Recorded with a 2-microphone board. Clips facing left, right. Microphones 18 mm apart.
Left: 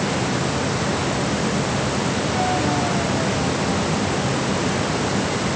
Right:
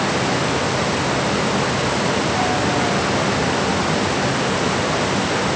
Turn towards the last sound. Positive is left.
No sound to turn to.